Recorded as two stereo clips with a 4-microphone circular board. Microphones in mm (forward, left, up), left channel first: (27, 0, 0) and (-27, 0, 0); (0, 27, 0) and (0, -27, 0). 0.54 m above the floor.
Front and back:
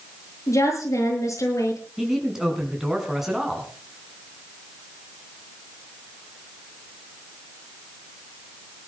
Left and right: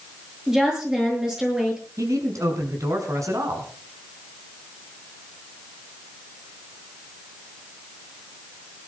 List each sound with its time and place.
0.5 s a woman speaking: 10° right, 8.5 m
2.0 s a man speaking: 95° right, 4.5 m